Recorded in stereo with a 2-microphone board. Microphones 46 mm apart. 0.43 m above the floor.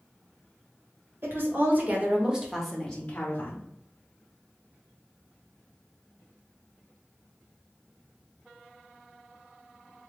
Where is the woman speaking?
55° right (ahead or behind), 1.5 m; by 3.6 s 45° left (ahead or behind), 1.2 m.